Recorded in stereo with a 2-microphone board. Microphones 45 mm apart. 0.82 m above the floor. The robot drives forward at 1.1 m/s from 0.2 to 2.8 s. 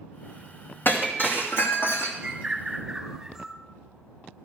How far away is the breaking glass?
About 3 m.